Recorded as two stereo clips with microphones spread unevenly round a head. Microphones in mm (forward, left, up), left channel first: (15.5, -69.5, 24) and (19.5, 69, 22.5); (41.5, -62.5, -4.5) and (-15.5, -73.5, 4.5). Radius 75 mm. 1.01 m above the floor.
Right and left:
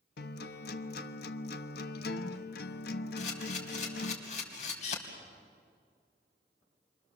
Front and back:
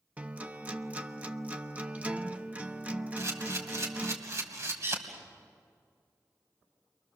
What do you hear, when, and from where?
0.2 s a guitar: 100° right, 1.1 m
3.2 s a camera shutter: 140° right, 3.5 m